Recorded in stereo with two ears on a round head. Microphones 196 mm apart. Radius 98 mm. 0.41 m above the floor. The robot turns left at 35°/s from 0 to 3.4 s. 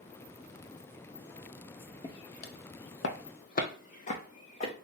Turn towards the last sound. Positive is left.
turn(degrees=30)  # may be behind; listen again after turning